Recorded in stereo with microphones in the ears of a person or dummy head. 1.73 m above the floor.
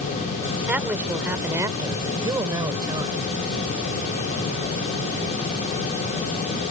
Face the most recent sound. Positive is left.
turn(degrees=-20)  # may be behind; listen again after turning